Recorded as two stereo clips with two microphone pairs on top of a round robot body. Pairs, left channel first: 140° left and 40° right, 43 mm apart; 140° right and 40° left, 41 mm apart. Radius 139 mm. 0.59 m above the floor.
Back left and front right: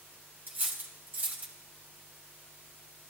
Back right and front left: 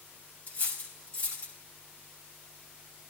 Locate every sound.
0.5 s cutlery clinking: 90° right, 3 m